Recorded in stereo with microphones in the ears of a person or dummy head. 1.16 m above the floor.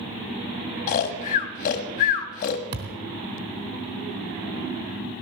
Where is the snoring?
45° left (ahead or behind), 1.4 m.